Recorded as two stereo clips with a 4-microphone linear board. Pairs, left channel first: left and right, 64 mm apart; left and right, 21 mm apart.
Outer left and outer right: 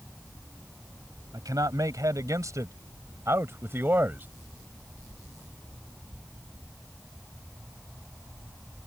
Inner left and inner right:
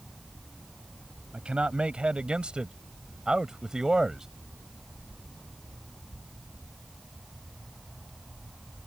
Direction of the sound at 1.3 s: 70° right (ahead or behind).